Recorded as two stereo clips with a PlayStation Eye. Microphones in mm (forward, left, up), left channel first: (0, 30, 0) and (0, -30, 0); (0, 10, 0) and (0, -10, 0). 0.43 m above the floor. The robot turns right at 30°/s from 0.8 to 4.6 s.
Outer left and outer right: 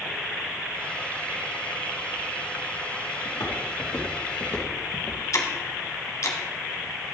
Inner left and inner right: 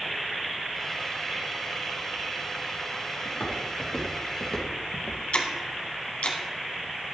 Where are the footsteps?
65° left (ahead or behind), 3.5 m; by 5.2 s 45° left (ahead or behind), 2.0 m.